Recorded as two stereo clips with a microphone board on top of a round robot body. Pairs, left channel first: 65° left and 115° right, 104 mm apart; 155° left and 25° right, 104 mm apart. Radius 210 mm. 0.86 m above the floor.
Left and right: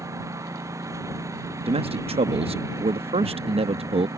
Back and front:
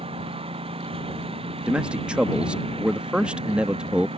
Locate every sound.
0.0 s a lawn mower: 50° right
1.7 s a man speaking: 105° right